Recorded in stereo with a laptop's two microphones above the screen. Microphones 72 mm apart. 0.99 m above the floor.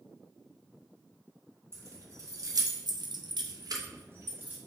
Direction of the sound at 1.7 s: 40° right (ahead or behind).